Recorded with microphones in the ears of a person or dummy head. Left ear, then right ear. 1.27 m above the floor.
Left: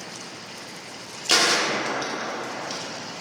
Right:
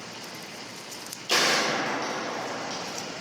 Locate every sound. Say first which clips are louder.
1.3 s a gunshot: left 3 dB; 35° left (ahead or behind), 0.6 m